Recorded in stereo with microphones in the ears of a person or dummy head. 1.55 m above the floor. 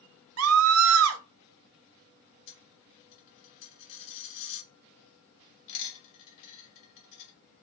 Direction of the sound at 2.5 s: 65° left (ahead or behind).